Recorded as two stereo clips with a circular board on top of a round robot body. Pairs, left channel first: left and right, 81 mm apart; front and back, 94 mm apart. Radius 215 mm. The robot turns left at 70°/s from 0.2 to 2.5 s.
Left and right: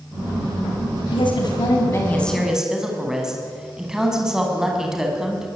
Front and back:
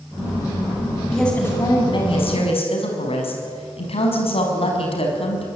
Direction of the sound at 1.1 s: 90° left.